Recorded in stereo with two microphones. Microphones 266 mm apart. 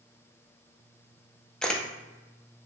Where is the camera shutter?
5° left (ahead or behind), 0.6 m.